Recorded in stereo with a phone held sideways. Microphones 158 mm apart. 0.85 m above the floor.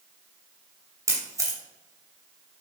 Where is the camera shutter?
20° right (ahead or behind), 2.5 m.